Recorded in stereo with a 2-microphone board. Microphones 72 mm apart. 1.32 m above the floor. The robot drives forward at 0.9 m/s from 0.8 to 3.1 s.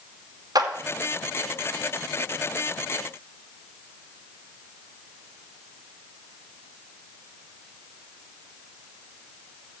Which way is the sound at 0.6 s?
60° right (ahead or behind).